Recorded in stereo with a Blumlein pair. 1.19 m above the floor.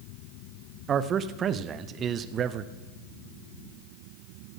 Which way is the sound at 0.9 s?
25° right.